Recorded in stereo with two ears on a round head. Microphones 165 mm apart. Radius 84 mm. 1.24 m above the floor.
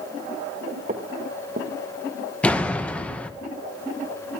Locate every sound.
0.9 s footsteps: 40° right (ahead or behind), 1.7 m
2.4 s a door slam: 10° left (ahead or behind), 0.8 m